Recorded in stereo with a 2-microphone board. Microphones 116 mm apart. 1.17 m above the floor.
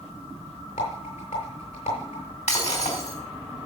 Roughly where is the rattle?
Left.